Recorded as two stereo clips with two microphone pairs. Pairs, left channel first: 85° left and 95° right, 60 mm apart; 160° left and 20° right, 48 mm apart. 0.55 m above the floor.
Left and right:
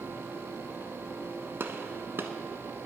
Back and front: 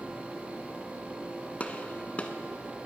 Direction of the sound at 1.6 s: 140° right.